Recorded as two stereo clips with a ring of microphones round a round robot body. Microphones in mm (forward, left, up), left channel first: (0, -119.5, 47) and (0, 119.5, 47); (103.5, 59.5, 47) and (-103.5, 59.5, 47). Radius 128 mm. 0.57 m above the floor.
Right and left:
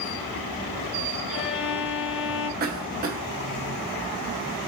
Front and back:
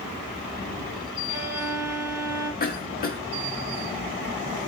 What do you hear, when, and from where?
1.3 s a violin: 130° right, 3 m
2.6 s a cough: 40° left, 1.2 m